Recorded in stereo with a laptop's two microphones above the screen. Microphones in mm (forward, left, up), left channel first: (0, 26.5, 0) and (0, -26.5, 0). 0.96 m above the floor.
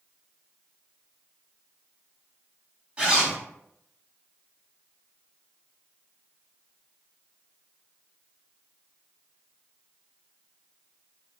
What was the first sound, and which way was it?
A zipper, 25° right (ahead or behind).